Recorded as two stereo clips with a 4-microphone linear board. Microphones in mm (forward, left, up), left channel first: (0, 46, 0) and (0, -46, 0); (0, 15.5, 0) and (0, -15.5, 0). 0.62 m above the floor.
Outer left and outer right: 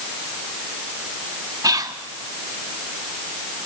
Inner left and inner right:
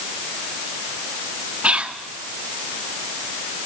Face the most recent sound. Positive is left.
turn(degrees=-40)  # may be behind; listen again after turning